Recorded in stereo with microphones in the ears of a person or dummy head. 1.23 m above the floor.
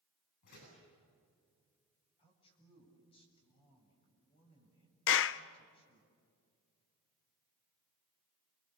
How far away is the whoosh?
I don't hear a whoosh.